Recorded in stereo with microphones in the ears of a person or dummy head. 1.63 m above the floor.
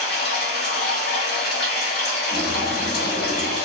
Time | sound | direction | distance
0.0 | running water | 55° left (ahead or behind) | 0.9 m
2.3 | a bird | 10° left (ahead or behind) | 1.1 m